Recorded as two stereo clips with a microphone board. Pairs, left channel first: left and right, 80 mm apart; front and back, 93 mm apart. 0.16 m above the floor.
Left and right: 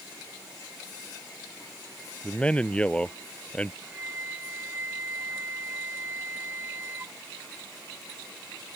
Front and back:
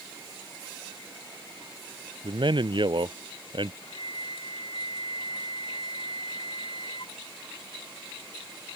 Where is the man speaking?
165° left.